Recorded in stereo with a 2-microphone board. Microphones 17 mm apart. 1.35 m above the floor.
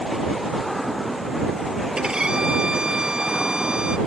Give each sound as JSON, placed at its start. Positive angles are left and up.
{"t": 2.0, "sound": "a violin", "side_deg": -70}